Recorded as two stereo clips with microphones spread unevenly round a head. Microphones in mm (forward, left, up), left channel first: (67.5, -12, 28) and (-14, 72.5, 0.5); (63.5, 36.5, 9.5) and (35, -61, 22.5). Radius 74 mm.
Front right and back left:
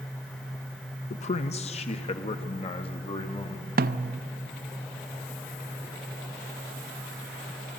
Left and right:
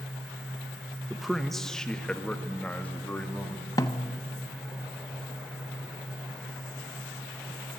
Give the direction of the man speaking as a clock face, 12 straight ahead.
1 o'clock.